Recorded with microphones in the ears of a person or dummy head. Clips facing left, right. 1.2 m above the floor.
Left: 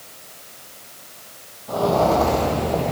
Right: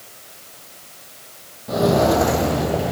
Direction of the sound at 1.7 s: 30° right (ahead or behind).